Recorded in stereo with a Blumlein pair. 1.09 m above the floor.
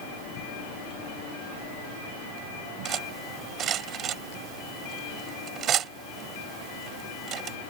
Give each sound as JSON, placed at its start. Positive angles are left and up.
{"t": 2.9, "sound": "cutlery clinking", "azimuth_deg": -30}